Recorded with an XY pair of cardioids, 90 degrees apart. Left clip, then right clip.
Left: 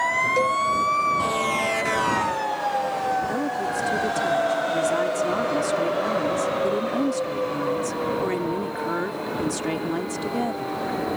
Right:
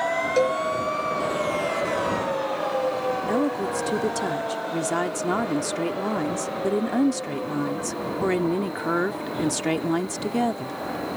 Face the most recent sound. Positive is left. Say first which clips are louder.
# right 1 dB
turn(degrees=-40)